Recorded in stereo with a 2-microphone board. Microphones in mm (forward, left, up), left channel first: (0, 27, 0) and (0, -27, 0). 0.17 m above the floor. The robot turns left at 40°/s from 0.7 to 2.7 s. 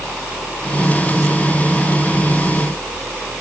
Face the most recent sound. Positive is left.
No sound to turn to.